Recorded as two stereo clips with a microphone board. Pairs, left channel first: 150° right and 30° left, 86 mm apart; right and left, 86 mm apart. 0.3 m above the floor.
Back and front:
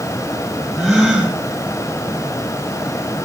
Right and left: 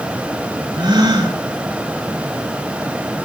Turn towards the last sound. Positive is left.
turn(degrees=105)